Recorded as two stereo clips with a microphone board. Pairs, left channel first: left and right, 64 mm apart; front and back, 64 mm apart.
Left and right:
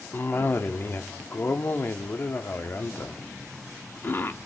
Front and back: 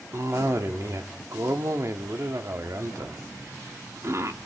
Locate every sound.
0.1 s a cough: 145° left, 1.1 m